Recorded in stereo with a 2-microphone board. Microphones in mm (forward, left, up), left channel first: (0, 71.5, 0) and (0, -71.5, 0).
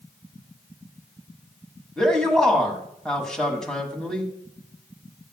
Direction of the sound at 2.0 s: 5° left (ahead or behind).